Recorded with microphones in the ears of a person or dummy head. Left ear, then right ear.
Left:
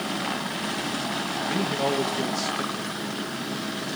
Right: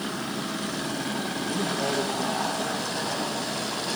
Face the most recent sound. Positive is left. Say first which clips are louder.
# left 2 dB
turn(degrees=55)  # may be behind; listen again after turning